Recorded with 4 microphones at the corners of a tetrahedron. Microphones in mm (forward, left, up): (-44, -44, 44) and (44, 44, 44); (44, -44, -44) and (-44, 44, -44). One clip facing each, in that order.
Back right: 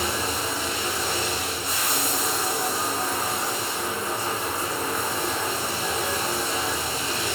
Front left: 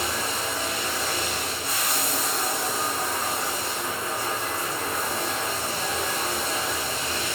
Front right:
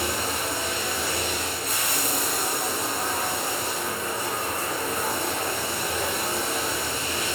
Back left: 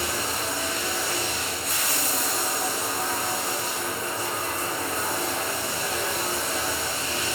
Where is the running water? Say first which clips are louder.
Back right 2 dB, front right 1 dB; 75° right, 5 m.